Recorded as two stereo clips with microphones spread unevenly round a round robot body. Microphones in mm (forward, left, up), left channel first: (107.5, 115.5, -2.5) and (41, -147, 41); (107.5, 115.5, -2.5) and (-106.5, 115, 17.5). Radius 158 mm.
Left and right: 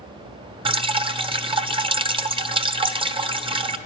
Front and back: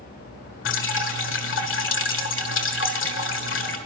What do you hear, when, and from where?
0.7 s dripping: 30° right, 1.3 m